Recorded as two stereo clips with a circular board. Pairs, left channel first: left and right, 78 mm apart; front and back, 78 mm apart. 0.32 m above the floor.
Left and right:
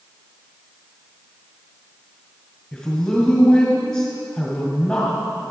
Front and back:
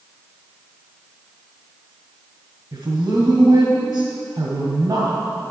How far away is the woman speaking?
About 2.0 m.